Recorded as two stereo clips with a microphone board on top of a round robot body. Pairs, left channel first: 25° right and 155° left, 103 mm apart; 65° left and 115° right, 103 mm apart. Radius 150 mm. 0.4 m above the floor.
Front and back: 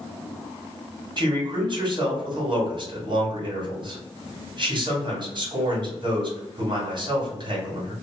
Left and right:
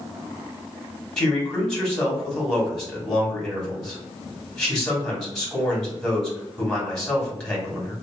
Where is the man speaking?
155° left, 1.8 m.